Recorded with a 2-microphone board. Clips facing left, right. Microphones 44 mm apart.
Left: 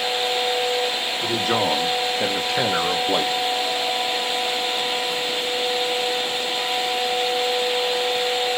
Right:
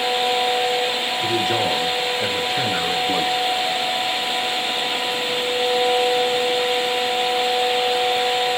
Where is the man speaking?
60° left (ahead or behind), 2.5 m; by 3.3 s 80° left, 1.9 m.